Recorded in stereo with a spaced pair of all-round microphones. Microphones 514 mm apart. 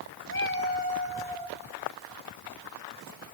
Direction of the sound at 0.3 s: 25° left (ahead or behind).